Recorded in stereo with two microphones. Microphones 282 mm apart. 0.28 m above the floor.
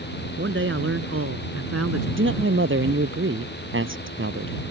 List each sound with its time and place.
0.4 s a man speaking: 45° right (ahead or behind); by 2.1 s 65° right (ahead or behind)
2.2 s a man speaking: 50° right (ahead or behind)